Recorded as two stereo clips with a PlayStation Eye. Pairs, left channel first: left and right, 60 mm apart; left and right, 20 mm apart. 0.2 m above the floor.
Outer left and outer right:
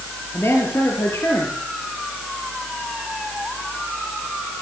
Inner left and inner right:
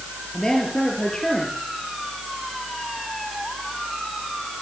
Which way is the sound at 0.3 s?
45° left (ahead or behind).